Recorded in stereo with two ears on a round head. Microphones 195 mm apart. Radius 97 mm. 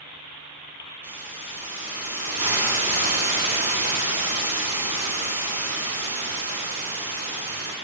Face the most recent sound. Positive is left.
turn(degrees=-10)  # may be behind; listen again after turning